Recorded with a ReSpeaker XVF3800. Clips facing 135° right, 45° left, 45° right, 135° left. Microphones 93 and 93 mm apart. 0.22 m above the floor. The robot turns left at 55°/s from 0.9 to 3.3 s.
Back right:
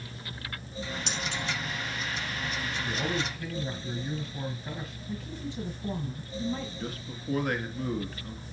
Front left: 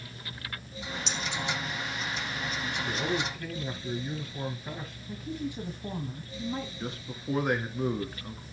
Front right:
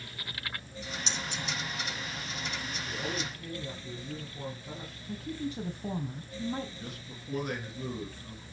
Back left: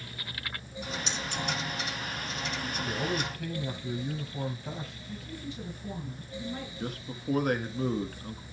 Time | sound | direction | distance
1.1 | keys jangling | 105° right | 3.5 m
2.9 | a man speaking | 155° left | 3 m
5.1 | a woman speaking | 30° right | 1.9 m
6.8 | a man speaking | 110° left | 2 m